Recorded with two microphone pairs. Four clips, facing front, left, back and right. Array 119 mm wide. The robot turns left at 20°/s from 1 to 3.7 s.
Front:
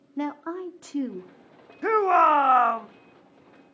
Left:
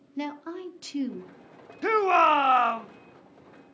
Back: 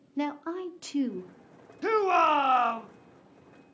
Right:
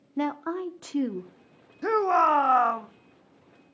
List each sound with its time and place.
0.2 s a woman speaking: 55° right, 0.8 m; by 1.7 s 70° right, 0.8 m
1.8 s a shout: 40° left, 0.7 m; by 2.9 s 20° left, 0.7 m